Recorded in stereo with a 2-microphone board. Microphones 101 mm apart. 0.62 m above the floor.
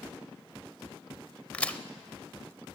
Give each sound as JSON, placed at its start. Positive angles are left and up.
{"t": 1.5, "sound": "a crack", "side_deg": 15, "distance_m": 0.6}